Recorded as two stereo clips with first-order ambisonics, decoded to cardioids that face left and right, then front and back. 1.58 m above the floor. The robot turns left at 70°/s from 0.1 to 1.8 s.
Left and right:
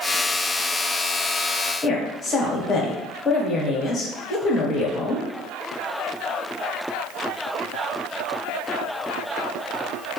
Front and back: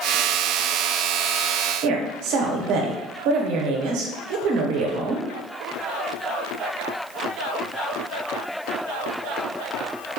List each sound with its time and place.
1.8 s a woman speaking: 160° left, 0.9 m